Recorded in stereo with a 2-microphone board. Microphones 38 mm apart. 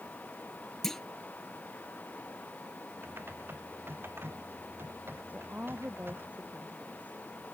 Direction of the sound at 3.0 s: 70° right (ahead or behind).